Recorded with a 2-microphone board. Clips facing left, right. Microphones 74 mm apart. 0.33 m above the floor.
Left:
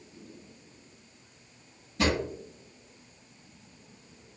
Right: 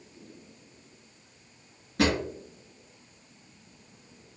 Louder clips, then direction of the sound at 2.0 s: Right 2 dB; 75° right (ahead or behind).